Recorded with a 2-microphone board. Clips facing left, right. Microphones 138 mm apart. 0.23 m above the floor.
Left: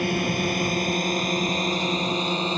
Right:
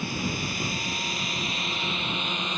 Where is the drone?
60° left (ahead or behind); by 2.6 s 30° left (ahead or behind).